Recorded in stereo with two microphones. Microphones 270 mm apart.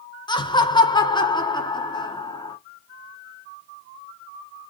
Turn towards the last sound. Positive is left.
turn(degrees=15)  # may be behind; listen again after turning